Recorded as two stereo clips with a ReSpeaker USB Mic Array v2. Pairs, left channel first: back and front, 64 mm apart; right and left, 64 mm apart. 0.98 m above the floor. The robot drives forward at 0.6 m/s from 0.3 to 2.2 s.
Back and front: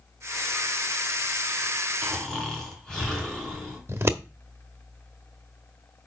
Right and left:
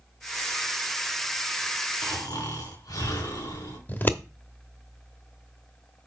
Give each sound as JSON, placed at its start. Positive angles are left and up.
{"t": 2.0, "sound": "snoring", "azimuth_deg": -95, "distance_m": 4.0}
{"t": 3.9, "sound": "scissors", "azimuth_deg": -40, "distance_m": 1.0}